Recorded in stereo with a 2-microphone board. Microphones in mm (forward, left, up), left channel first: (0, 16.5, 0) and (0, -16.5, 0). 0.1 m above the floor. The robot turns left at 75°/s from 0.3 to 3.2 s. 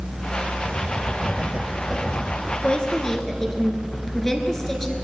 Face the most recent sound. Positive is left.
turn(degrees=25)